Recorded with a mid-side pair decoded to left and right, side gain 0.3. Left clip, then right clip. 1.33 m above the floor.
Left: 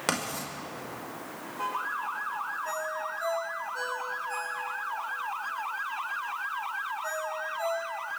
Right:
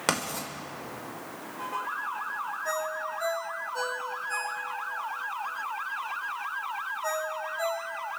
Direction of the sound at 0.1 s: 25° right.